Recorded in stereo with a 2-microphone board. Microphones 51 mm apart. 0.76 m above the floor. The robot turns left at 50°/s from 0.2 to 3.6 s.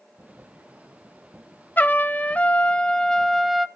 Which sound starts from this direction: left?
A trumpet, at 1.8 s.